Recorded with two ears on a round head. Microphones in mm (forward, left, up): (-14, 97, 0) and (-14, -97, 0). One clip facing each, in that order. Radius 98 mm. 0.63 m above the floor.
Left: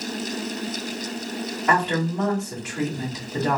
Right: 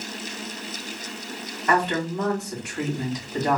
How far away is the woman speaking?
About 3 m.